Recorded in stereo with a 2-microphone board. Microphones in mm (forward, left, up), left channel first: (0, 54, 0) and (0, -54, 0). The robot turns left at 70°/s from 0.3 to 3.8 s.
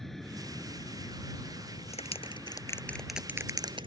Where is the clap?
75° left (ahead or behind); by 3.9 s 50° right (ahead or behind).